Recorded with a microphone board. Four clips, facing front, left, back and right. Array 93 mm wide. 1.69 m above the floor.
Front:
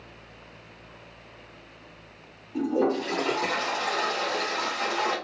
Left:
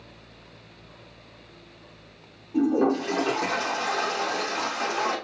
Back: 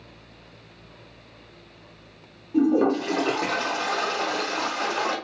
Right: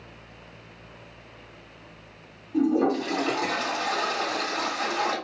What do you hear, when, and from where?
2.5 s a toilet flushing: 160° left, 1.5 m